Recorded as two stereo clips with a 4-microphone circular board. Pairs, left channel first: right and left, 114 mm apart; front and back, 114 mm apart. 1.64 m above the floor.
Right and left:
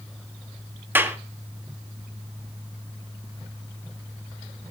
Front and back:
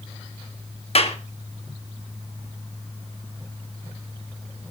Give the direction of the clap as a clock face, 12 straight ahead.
11 o'clock.